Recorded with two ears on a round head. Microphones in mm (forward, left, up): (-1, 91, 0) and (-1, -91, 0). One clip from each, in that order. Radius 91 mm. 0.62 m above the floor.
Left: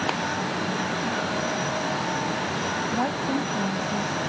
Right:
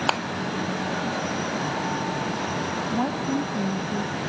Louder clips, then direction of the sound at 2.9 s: Left 1 dB; 65° left (ahead or behind).